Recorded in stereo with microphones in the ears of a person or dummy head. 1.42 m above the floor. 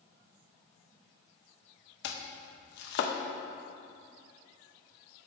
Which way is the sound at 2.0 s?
75° left (ahead or behind).